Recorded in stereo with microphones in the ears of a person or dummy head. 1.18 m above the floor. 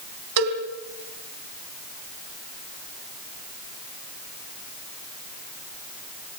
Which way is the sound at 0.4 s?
75° right (ahead or behind).